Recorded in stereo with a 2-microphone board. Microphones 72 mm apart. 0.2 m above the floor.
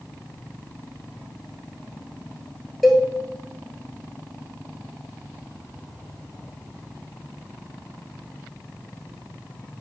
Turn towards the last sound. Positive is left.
turn(degrees=0)  # may be behind; listen again after turning